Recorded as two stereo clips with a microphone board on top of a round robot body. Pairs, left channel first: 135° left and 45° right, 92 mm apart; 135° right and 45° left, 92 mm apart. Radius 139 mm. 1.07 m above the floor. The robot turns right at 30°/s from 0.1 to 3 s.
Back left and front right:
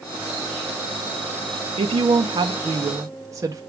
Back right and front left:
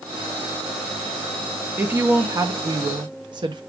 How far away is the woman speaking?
About 0.6 m.